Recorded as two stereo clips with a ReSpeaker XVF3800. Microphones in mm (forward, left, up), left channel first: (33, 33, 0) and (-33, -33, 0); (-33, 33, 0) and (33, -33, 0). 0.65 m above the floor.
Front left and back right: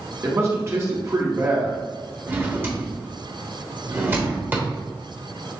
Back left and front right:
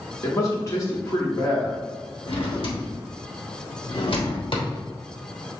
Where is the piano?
No piano in this recording.